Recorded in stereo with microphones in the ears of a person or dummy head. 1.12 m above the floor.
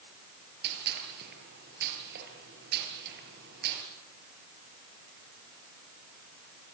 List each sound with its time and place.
0.6 s a gunshot: 60° right (ahead or behind), 8 m